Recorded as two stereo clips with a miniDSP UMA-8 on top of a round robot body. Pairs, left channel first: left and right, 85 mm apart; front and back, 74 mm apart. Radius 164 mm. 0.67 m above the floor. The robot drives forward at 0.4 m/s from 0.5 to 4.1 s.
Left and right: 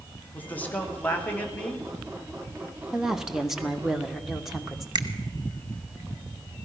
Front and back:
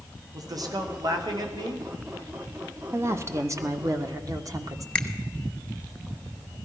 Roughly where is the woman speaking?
Behind.